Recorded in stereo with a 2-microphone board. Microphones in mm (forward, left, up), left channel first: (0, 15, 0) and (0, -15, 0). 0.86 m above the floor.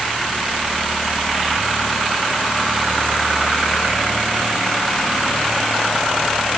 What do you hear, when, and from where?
Only background noise.